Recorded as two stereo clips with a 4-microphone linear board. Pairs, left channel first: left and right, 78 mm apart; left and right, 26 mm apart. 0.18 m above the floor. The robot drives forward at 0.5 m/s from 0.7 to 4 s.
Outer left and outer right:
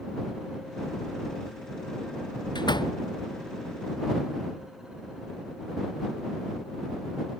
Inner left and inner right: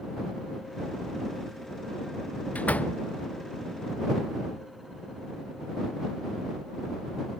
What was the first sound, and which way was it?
A door slam, 70° left (ahead or behind).